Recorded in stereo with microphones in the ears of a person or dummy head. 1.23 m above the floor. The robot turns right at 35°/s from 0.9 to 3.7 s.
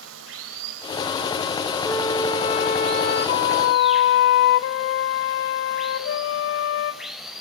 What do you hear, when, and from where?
0.0 s running water: 100° right, 3 m; by 7.4 s 5° right, 3 m
1.9 s a flute: 10° left, 1.6 m; by 7.0 s 75° left, 1.6 m